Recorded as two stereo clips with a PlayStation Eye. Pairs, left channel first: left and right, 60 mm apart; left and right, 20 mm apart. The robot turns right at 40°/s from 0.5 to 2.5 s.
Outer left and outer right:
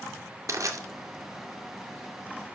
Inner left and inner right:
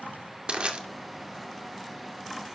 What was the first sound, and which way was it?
Crushing, 60° right (ahead or behind).